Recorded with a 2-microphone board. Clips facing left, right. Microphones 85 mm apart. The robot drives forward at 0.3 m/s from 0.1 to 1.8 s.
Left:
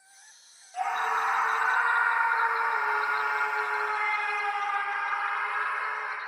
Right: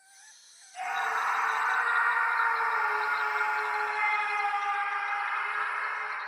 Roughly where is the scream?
Left.